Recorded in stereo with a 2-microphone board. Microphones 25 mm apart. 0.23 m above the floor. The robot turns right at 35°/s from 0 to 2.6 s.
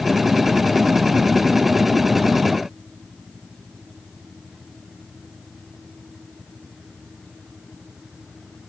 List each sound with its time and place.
Only background noise.